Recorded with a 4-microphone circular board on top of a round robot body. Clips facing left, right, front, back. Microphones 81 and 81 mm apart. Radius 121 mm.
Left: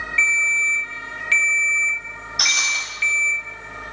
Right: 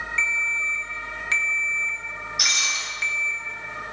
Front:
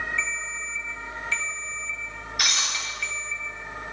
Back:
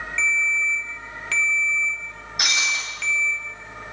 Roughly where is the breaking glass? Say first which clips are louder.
Left 5 dB, back 4 dB; behind left.